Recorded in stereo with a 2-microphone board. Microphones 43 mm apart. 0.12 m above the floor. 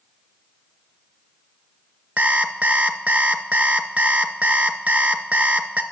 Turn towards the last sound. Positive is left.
turn(degrees=-40)  # may be behind; listen again after turning